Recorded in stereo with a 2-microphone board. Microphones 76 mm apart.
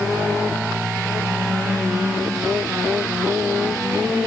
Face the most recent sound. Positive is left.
No sound to turn to.